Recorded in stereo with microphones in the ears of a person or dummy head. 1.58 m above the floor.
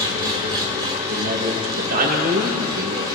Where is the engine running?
25° right (ahead or behind), 2.5 m.